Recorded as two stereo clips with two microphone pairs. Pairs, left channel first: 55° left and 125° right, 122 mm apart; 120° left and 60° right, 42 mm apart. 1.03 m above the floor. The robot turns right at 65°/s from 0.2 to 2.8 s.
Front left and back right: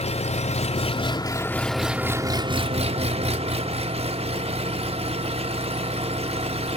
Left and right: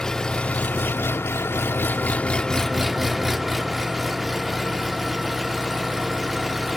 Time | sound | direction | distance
0.0 | an engine running | 40° left | 0.9 m